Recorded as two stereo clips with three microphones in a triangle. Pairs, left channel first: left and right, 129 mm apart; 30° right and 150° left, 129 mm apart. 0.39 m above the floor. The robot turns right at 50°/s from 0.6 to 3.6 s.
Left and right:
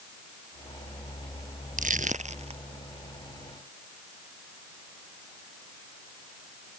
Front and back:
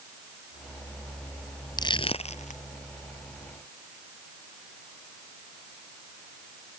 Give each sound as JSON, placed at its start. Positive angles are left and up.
{"t": 1.8, "sound": "crushing", "azimuth_deg": -90}